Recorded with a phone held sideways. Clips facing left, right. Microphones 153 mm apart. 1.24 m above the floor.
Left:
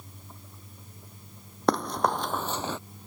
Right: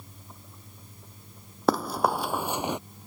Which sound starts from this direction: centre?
Running footsteps, at 1.7 s.